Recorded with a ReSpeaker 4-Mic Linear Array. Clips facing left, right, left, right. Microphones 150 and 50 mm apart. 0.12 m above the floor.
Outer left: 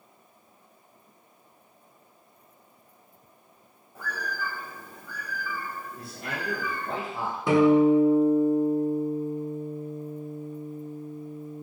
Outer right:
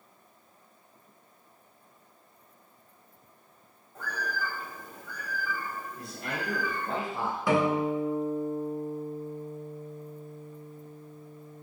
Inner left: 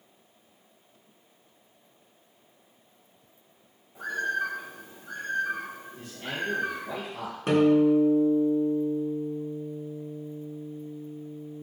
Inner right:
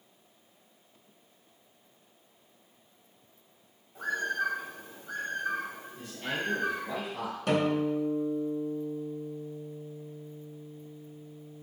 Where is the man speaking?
5° left (ahead or behind), 1.7 m.